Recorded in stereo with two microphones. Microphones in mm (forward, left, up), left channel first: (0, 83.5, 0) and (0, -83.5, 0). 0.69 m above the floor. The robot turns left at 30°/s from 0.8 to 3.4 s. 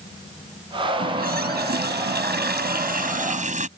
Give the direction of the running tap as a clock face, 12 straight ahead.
2 o'clock.